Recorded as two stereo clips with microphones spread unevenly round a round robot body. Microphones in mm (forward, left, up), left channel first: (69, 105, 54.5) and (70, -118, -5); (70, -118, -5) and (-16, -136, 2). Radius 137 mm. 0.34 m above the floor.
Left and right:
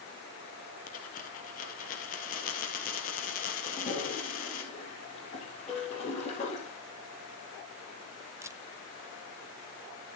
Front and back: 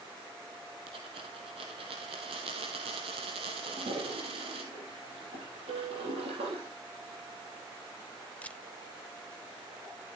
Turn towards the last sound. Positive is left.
turn(degrees=-45)